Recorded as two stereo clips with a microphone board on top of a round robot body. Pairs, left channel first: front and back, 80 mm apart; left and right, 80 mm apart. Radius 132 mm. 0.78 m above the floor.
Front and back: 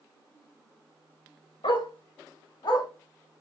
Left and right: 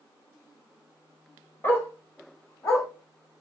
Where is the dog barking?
25° left, 1.6 m; by 2.9 s 35° left, 2 m.